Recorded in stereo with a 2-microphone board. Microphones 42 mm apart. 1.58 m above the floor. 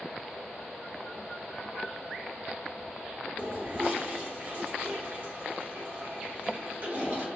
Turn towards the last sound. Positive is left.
turn(degrees=-50)  # may be behind; listen again after turning